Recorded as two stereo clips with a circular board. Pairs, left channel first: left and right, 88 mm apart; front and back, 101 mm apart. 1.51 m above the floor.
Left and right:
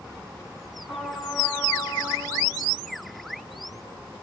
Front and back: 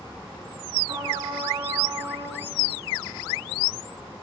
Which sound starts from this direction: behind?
A trumpet, at 0.9 s.